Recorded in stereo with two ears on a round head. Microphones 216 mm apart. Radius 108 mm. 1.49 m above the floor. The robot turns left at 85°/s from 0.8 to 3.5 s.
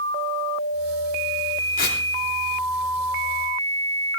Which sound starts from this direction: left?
Tearing paper, at 1.8 s.